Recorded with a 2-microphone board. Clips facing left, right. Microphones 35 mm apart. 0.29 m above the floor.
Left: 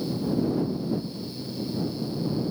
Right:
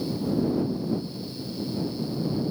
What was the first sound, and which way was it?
Only background noise.